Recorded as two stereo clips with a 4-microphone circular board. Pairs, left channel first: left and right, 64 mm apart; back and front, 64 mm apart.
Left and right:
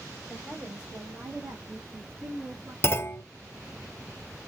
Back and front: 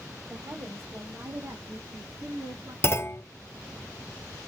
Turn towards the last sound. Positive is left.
turn(degrees=135)